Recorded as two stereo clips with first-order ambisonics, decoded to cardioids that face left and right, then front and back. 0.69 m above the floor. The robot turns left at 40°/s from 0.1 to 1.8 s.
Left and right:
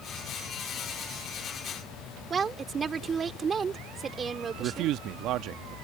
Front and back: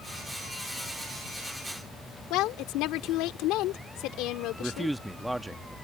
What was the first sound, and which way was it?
A woman speaking, 20° right.